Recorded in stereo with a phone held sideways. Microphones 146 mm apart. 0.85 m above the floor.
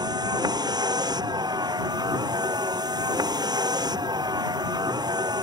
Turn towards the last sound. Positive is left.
turn(degrees=-30)  # may be behind; listen again after turning